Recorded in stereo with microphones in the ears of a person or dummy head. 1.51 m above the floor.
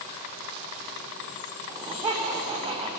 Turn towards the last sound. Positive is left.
turn(degrees=-20)  # may be behind; listen again after turning